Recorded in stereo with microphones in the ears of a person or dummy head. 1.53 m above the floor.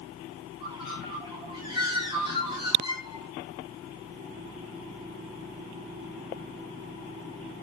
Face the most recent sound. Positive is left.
turn(degrees=-30)  # may be behind; listen again after turning